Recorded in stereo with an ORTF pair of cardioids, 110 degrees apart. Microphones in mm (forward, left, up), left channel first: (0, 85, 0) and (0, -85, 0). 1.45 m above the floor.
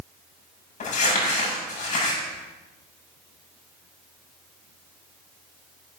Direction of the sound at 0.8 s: 45° left.